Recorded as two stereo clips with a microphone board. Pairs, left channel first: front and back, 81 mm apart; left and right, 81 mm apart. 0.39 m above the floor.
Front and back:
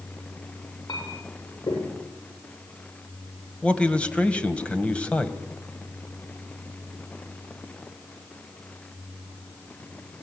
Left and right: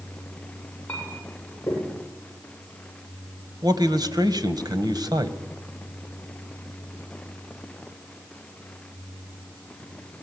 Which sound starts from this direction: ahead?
A clink, at 0.9 s.